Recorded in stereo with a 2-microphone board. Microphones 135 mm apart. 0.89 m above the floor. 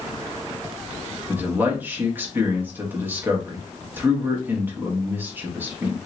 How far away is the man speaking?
About 1.3 m.